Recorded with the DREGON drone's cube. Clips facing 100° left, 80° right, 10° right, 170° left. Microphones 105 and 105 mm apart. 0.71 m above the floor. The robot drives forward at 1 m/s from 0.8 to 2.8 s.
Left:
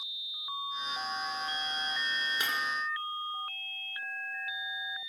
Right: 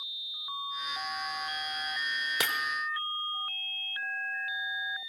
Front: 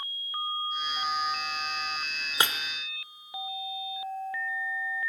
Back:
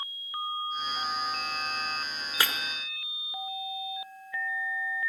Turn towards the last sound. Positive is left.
turn(degrees=-100)